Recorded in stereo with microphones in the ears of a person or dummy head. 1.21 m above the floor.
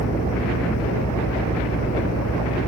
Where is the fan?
85° left.